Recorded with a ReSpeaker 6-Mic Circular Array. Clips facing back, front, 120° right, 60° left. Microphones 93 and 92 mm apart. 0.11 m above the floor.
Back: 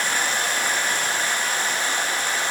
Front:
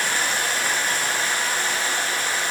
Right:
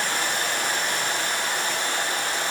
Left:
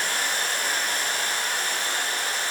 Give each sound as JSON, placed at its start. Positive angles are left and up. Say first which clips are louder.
{"t": 0.0, "sound": "running water", "louder": "even, right 2 dB", "azimuth_deg": -105, "distance_m": 1.1}